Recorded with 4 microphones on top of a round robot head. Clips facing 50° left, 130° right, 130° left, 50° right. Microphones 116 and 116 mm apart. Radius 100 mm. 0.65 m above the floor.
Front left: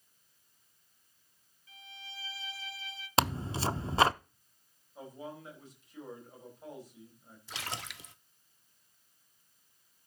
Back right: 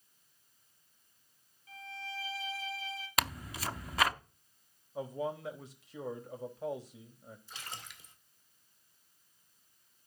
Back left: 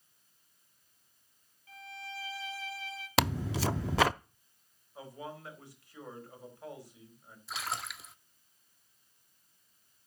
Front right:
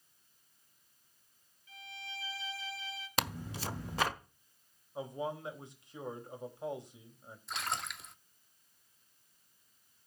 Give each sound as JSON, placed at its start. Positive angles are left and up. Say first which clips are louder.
{"t": 1.7, "sound": "a violin", "louder": "back right 8 dB, back left 4 dB", "azimuth_deg": 180, "distance_m": 2.5}
{"t": 3.2, "sound": "tearing paper", "louder": "front left 7 dB, back left 8 dB", "azimuth_deg": 110, "distance_m": 0.6}
{"t": 5.0, "sound": "a man speaking", "louder": "back right 8 dB, front right 6 dB", "azimuth_deg": -120, "distance_m": 4.5}
{"t": 7.5, "sound": "a splash", "louder": "front left 9 dB, even", "azimuth_deg": 45, "distance_m": 1.0}